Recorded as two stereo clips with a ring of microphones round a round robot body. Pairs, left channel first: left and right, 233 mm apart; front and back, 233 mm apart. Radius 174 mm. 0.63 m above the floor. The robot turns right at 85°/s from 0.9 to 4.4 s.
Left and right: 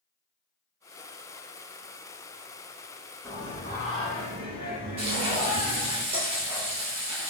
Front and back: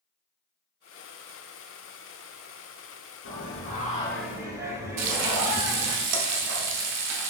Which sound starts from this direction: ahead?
Singing, at 3.2 s.